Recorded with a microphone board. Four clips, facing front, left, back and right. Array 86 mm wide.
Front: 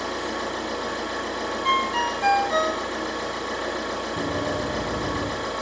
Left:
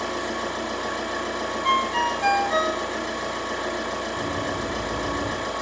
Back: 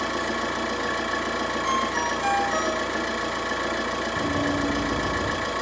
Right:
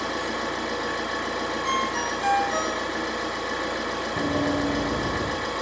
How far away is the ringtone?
About 0.5 m.